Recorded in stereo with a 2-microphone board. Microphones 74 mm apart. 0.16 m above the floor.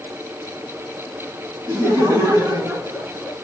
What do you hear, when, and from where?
1.7 s laughter: 45° right (ahead or behind), 2 m; by 3.3 s 35° right (ahead or behind), 2.5 m